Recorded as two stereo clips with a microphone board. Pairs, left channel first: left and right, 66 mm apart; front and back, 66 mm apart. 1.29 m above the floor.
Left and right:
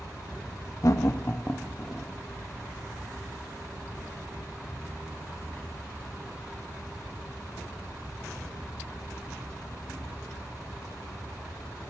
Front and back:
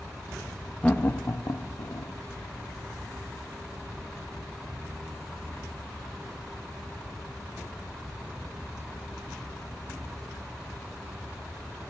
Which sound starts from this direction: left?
Laughter, at 0.8 s.